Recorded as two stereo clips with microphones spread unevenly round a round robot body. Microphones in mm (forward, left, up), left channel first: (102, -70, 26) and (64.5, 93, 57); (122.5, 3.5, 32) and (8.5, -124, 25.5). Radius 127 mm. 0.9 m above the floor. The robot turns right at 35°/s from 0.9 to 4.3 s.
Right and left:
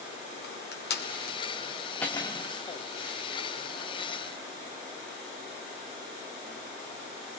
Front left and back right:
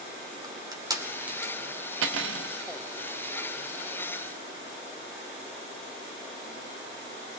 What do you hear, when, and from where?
0.4 s crushing: 65° right, 2.5 m; by 1.5 s 40° right, 2.5 m
2.0 s cutlery clinking: 165° right, 0.9 m; by 2.5 s 145° right, 0.9 m